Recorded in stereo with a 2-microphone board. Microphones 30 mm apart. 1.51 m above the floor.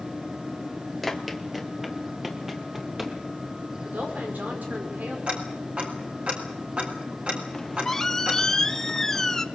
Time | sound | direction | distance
1.0 | running footsteps | centre (ahead or behind) | 1.6 m
3.9 | a woman speaking | 80° right | 5.5 m
5.3 | ticking | 50° right (ahead or behind) | 4.5 m
7.5 | a squeak | 15° left (ahead or behind) | 1.0 m